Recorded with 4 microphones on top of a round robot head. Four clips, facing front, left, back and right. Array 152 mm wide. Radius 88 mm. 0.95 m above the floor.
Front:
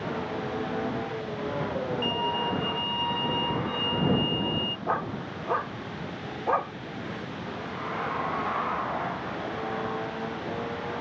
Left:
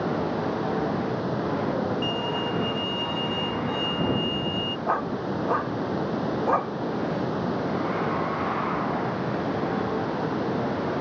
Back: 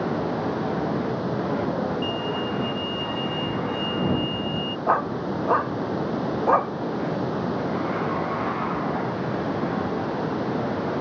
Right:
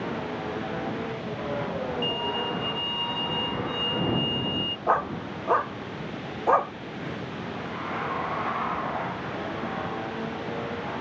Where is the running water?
140° left.